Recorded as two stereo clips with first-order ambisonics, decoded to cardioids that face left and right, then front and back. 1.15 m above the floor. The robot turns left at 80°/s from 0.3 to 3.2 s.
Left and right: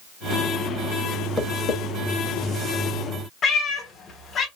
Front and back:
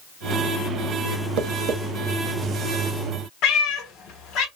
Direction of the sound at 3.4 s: 30° left.